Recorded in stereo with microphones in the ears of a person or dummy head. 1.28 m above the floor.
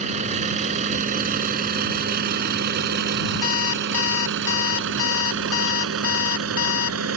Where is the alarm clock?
75° left (ahead or behind).